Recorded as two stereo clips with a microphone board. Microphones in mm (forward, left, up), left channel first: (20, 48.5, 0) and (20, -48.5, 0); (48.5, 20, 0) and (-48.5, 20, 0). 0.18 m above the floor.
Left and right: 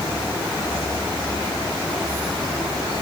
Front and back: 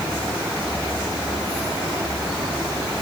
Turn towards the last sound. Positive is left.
No sound to turn to.